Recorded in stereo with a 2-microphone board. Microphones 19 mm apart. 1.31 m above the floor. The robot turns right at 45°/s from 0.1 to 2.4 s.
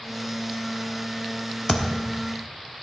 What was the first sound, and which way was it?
A thud, 25° left (ahead or behind).